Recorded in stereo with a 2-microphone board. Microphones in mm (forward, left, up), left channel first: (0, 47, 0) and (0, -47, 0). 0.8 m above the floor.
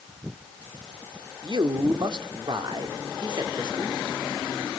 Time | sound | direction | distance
1.4 | a man speaking | 55° right (ahead or behind) | 1.7 m